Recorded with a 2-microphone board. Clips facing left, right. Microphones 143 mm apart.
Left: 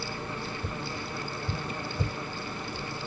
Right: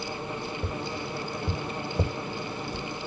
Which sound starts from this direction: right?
Tapping, at 0.6 s.